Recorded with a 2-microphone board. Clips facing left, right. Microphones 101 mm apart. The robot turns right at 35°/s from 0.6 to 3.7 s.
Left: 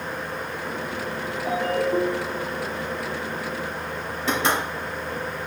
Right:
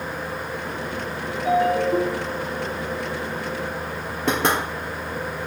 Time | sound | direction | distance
1.4 | a ringtone | 175° right | 2.0 m
4.3 | knocking | 60° right (ahead or behind) | 2.5 m